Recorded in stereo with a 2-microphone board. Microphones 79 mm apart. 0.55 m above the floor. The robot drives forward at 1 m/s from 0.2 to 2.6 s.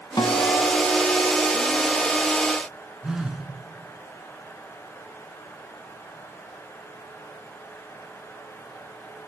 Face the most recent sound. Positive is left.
turn(degrees=-5)  # may be behind; listen again after turning